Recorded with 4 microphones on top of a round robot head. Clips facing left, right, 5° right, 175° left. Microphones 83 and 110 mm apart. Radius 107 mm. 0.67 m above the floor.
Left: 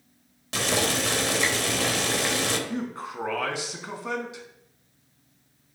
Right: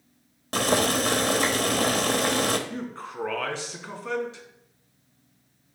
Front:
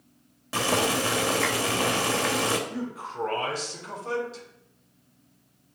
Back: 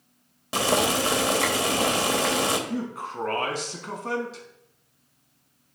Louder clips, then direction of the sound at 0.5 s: Right 3 dB, back 2 dB; 115° right.